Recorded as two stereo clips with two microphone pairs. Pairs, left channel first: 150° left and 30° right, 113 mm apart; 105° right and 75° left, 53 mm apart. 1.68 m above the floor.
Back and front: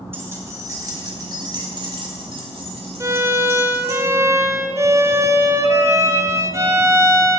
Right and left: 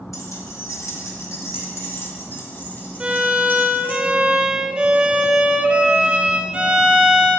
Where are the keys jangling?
100° right, 2 m; by 4.0 s 50° right, 3 m.